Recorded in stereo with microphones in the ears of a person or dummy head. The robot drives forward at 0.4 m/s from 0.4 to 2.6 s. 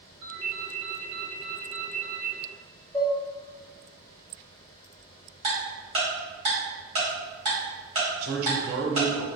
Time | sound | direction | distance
0.2 | a ringtone | 30° right (ahead or behind) | 0.9 m
2.9 | dishes clattering | 25° right (ahead or behind) | 1.8 m
5.4 | ticking | 40° right (ahead or behind) | 1.9 m
8.2 | a man speaking | 60° right (ahead or behind) | 0.7 m